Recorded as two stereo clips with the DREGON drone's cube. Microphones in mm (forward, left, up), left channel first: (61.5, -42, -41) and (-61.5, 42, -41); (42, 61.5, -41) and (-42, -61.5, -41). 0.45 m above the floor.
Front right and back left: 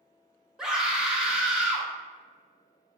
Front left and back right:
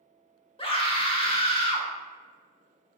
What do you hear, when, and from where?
0.6 s a scream: 65° left, 1.0 m